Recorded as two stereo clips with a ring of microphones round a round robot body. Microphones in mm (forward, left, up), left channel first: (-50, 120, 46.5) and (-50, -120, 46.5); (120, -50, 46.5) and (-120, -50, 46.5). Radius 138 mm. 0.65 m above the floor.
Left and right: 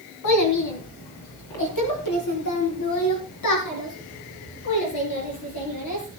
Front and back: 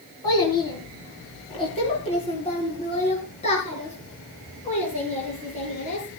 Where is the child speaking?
75° left, 4 m; by 6.2 s 65° left, 7 m.